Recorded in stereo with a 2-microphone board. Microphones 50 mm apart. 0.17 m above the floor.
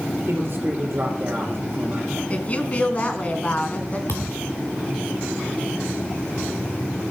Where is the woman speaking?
30° left (ahead or behind), 1.5 m.